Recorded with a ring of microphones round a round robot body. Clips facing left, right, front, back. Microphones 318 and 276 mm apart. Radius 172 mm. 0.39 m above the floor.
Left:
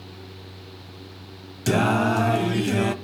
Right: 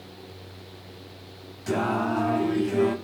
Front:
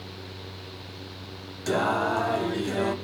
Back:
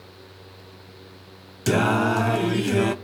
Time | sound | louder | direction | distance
1.7 | singing | left 4 dB, back 5 dB | 130° left | 0.7 m